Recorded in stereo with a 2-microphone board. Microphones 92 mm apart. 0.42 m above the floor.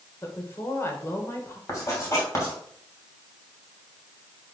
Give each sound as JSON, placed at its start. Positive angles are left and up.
{"t": 0.2, "sound": "a woman speaking", "side_deg": 30, "distance_m": 1.8}
{"t": 1.7, "sound": "writing", "side_deg": 30, "distance_m": 3.0}